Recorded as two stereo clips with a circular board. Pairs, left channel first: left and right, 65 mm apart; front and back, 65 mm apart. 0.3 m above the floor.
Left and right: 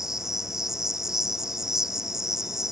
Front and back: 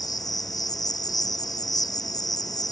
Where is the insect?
5° right.